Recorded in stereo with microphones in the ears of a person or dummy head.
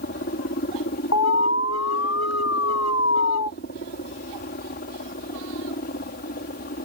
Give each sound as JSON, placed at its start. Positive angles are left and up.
{"t": 0.0, "sound": "a helicopter", "side_deg": 45}
{"t": 1.1, "sound": "an alarm", "side_deg": 75}